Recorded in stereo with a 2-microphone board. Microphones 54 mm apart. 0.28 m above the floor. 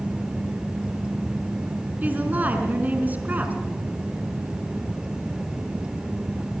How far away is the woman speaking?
About 3.5 m.